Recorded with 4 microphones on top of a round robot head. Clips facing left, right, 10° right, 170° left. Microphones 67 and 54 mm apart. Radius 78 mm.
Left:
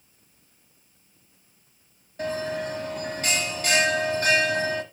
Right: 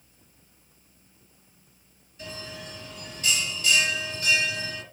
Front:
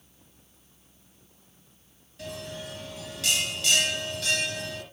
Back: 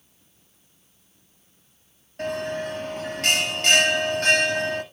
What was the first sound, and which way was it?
A bell, 125° left.